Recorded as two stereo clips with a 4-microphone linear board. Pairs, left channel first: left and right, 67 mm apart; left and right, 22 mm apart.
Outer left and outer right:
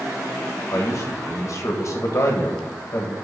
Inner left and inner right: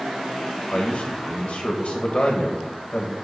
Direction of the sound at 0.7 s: 60° left (ahead or behind).